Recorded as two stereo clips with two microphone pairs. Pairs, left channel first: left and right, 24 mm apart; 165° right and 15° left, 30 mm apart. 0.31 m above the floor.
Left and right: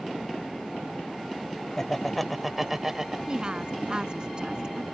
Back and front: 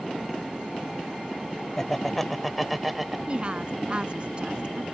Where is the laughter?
145° left; by 3.2 s 60° right.